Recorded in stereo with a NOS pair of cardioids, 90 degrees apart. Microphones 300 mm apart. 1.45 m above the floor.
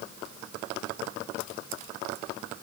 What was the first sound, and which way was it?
Only background noise.